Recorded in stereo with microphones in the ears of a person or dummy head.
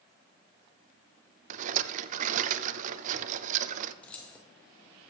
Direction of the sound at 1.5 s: 45° right (ahead or behind).